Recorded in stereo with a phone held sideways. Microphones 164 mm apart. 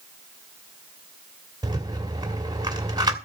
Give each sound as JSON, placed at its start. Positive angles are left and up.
{"t": 1.6, "sound": "a rattle", "side_deg": -25, "distance_m": 2.0}